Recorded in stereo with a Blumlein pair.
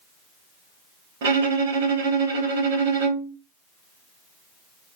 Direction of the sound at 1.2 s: 50° right.